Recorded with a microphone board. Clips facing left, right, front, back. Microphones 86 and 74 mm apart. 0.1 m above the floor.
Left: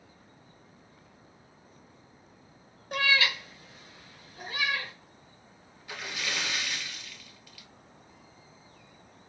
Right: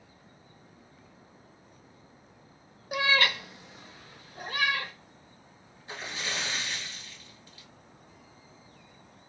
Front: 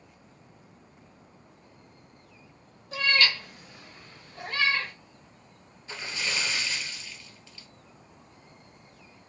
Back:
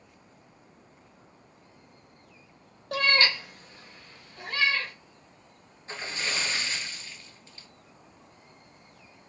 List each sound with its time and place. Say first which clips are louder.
2.9 s a cat meowing: right 1 dB, back 1 dB; 175° right, 0.6 m; by 4.9 s 60° right, 3 m
5.9 s a splash: even, even; 135° right, 1.1 m